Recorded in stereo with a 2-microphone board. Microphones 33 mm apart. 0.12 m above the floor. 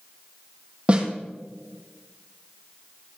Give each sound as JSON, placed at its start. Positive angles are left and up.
{"t": 0.9, "sound": "a snare drum", "side_deg": -35, "distance_m": 3.0}